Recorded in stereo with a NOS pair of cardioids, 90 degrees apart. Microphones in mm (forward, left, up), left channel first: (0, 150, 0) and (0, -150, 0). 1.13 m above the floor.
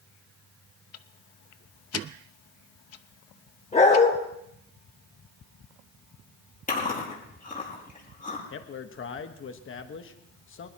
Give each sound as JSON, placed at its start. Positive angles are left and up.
{"t": 0.9, "sound": "ticking", "azimuth_deg": 60, "distance_m": 0.9}
{"t": 3.7, "sound": "a dog barking", "azimuth_deg": 25, "distance_m": 8.5}
{"t": 6.7, "sound": "chewing", "azimuth_deg": 30, "distance_m": 9.5}
{"t": 8.5, "sound": "a man speaking", "azimuth_deg": 45, "distance_m": 1.4}